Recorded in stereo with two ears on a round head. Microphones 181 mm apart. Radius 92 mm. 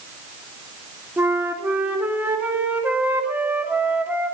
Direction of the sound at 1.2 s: 10° right (ahead or behind).